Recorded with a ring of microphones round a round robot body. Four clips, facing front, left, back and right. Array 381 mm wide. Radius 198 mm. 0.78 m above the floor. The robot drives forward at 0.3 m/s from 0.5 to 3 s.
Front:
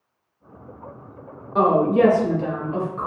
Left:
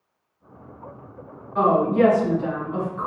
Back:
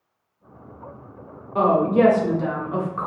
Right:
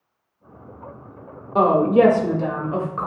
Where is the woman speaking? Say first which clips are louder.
Right 3 dB, front 1 dB; 85° right, 0.8 m; by 3.1 s 115° right, 0.9 m.